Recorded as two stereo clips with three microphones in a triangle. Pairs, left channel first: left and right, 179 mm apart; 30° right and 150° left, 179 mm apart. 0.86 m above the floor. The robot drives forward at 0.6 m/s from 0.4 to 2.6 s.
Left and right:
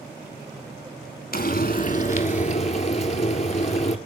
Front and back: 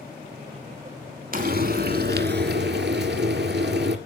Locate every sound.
1.3 s frying: 120° left, 1.3 m; by 4.0 s 140° left, 1.8 m